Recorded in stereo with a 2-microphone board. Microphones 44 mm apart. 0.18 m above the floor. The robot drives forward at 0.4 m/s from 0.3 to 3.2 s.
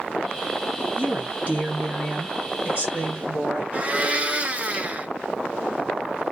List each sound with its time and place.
1.0 s a woman speaking: 35° right (ahead or behind), 2 m; by 3.6 s 25° right (ahead or behind), 2.5 m
3.7 s a blender: 30° right (ahead or behind), 0.6 m